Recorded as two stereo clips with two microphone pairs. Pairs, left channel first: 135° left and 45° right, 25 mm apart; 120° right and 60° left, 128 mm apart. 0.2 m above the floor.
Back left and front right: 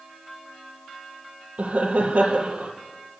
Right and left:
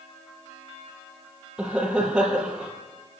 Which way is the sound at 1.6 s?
20° right.